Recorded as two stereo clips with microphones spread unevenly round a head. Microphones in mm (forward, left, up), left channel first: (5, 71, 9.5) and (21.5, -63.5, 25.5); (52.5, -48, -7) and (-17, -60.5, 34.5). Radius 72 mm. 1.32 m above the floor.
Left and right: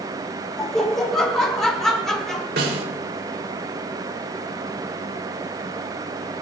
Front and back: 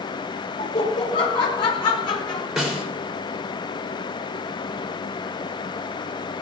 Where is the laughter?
10° left, 5 m.